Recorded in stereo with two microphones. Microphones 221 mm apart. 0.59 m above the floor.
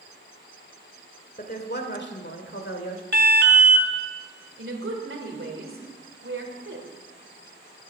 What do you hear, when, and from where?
1.4 s a woman speaking: 40° left (ahead or behind), 1.7 m; by 3.0 s 70° left (ahead or behind), 1.8 m
3.1 s an alarm: 50° right (ahead or behind), 1.2 m
4.6 s a woman speaking: 65° right (ahead or behind), 2.5 m